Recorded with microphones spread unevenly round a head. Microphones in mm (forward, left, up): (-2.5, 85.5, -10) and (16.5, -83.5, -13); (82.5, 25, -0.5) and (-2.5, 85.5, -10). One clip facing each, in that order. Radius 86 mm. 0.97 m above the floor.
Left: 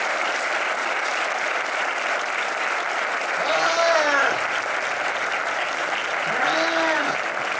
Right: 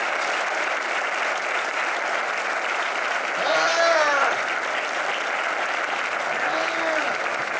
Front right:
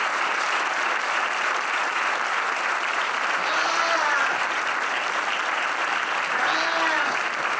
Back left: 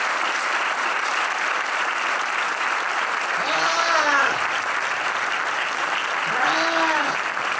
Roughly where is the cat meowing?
Behind right.